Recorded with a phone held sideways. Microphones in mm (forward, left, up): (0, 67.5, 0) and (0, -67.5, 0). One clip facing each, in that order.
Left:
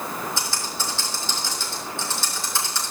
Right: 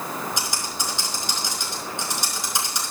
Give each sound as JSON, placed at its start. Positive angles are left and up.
{"t": 0.4, "sound": "typing on a keyboard", "side_deg": -15, "distance_m": 4.5}